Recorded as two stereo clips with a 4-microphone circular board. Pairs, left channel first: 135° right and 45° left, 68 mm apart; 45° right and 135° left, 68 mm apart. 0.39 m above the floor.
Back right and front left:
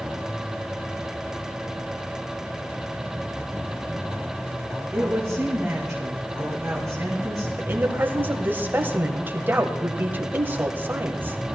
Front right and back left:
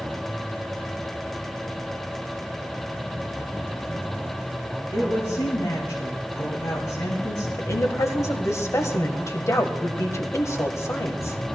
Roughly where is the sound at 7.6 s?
Ahead.